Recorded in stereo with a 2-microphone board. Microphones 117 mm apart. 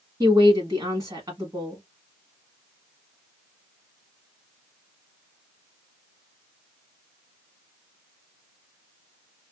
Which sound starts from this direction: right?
A woman speaking, at 0.2 s.